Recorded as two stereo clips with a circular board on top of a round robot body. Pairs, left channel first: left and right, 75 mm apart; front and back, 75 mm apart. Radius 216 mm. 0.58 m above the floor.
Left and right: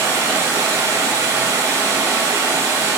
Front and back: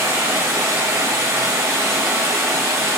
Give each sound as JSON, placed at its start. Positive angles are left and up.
{"t": 0.0, "sound": "running water", "azimuth_deg": -140, "distance_m": 1.6}